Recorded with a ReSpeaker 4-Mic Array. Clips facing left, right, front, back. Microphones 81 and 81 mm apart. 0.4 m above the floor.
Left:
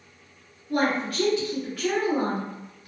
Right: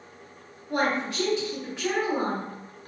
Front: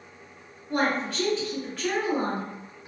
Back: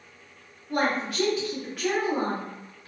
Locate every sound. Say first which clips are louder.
0.7 s a woman speaking: left 1 dB, even; 110° right, 1.5 m